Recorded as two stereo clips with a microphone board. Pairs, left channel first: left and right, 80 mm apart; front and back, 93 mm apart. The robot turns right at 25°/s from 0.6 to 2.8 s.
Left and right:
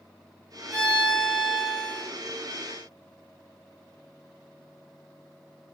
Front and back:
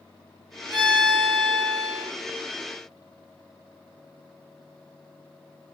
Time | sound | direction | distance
0.7 | a violin | 175° right | 1.1 m